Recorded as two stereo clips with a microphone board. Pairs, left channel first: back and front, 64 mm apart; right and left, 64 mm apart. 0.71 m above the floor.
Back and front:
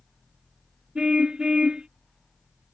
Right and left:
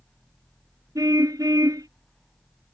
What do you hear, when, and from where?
0.9 s a car horn: 75° left